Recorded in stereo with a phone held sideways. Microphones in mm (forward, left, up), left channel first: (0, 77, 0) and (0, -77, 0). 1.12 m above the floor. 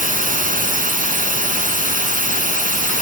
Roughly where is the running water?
Right.